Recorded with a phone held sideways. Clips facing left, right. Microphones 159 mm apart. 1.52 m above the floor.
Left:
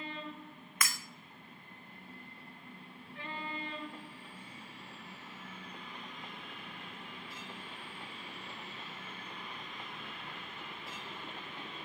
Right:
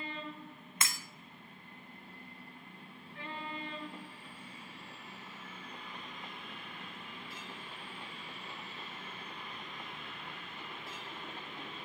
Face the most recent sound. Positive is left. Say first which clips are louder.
# left 1 dB
turn(degrees=-25)  # may be behind; listen again after turning